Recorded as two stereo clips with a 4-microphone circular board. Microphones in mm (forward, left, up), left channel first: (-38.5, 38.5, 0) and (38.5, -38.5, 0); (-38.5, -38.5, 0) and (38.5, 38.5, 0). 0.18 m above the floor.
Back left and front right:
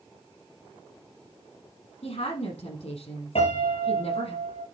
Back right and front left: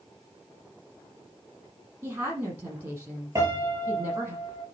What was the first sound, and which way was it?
A woman speaking, 115° left.